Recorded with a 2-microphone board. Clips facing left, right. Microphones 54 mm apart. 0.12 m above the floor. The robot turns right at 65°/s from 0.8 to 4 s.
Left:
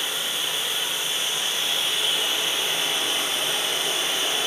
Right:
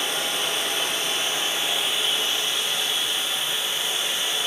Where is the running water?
80° right, 1.6 m; by 4.5 s 125° left, 1.6 m.